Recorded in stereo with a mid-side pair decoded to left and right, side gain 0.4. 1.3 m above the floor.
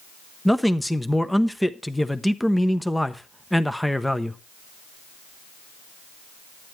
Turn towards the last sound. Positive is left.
turn(degrees=5)